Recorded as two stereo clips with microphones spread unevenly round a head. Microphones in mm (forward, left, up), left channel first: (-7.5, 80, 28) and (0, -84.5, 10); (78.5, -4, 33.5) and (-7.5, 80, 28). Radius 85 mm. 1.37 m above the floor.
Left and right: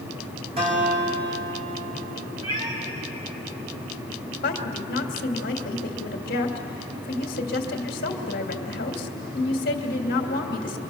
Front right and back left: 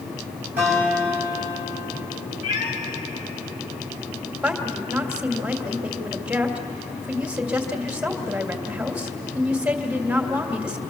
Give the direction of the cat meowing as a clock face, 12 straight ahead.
1 o'clock.